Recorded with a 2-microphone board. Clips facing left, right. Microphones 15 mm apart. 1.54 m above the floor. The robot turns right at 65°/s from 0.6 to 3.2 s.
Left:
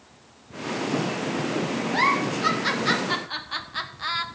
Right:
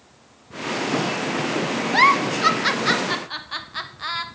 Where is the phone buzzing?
No phone buzzing in this recording.